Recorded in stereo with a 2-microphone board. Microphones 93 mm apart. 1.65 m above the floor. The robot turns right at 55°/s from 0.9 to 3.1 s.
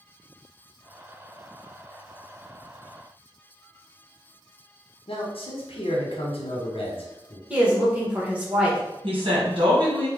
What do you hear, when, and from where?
5.1 s a man speaking: 80° left, 1.1 m
7.5 s a woman speaking: 15° right (ahead or behind), 1.4 m
9.0 s a woman speaking: 70° right (ahead or behind), 1.7 m